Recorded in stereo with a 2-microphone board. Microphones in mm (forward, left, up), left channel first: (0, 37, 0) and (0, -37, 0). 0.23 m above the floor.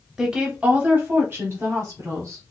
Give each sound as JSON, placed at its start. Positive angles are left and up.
{"t": 0.2, "sound": "a woman speaking", "side_deg": -10, "distance_m": 1.0}